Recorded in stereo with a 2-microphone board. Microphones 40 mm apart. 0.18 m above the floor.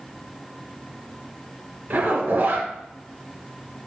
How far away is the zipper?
About 2.0 m.